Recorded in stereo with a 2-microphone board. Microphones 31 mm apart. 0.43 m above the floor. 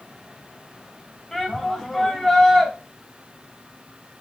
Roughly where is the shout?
Centre.